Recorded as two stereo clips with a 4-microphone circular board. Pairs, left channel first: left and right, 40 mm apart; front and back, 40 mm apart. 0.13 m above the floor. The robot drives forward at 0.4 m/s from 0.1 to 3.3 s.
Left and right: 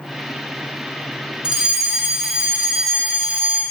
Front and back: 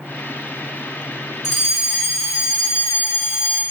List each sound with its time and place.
1.4 s a fire alarm: 125° right, 2 m; by 3.6 s 150° right, 2.5 m